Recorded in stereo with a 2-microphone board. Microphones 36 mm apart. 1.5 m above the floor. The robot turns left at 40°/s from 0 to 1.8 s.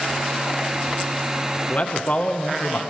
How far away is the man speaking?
About 1.3 m.